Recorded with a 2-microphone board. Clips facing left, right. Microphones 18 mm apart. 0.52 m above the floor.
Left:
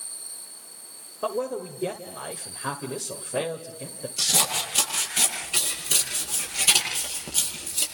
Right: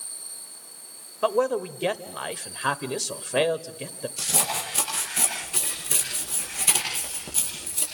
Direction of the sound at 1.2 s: 60° right (ahead or behind).